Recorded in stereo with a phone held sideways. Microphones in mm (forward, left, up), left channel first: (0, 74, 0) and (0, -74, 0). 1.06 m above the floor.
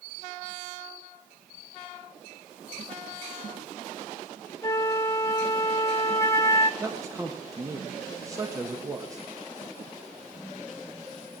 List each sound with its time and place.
4.6 s a flute: 20° left (ahead or behind), 1.0 m
6.8 s a man speaking: 20° right (ahead or behind), 1.1 m